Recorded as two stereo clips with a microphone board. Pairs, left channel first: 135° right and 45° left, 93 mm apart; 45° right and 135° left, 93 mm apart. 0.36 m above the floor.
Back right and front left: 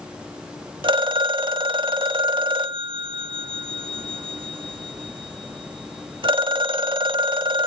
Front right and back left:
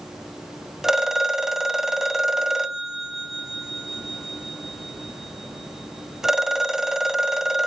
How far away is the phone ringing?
About 0.9 m.